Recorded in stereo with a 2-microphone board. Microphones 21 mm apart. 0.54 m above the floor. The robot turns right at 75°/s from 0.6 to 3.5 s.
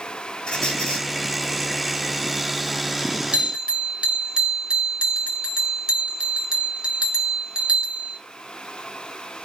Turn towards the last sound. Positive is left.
turn(degrees=-40)  # may be behind; listen again after turning